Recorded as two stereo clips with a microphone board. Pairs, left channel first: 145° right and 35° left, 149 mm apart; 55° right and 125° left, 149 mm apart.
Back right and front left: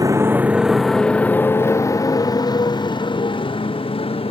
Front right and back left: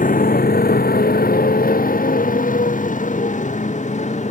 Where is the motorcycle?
30° right; by 4.3 s 95° right.